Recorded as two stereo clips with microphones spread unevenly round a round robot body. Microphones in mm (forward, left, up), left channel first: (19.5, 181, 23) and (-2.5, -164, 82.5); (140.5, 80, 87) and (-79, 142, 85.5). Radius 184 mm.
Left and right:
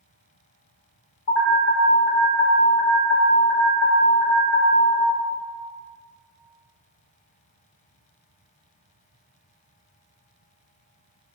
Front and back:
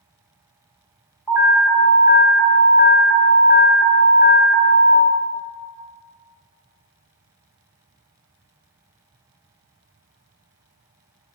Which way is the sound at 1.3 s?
80° left.